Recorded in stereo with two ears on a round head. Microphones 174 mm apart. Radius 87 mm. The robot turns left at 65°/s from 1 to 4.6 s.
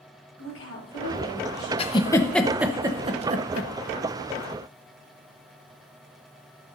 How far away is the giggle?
About 0.8 m.